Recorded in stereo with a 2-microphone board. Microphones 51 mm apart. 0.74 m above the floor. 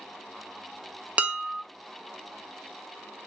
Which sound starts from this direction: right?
Dishes clattering, at 1.2 s.